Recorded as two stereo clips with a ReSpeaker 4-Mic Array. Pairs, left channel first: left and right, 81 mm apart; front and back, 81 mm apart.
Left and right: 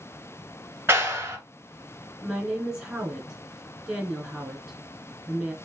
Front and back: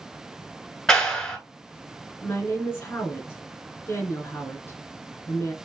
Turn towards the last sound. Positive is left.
turn(degrees=-15)